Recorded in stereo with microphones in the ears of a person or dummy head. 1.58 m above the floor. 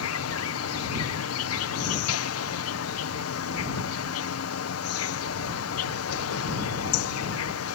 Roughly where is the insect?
Left.